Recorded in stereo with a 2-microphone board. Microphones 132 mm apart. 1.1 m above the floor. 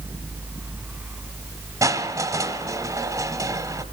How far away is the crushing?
About 1.9 m.